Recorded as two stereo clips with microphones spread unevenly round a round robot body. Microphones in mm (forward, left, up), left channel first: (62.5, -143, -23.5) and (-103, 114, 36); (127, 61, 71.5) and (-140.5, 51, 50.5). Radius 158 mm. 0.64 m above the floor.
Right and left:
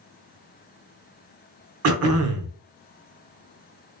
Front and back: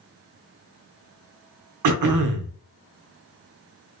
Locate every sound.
1.8 s throat clearing: 170° left, 0.8 m